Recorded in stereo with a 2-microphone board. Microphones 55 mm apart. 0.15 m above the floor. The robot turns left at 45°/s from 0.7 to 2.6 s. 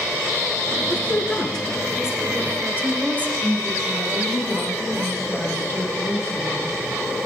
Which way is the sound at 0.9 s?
40° left.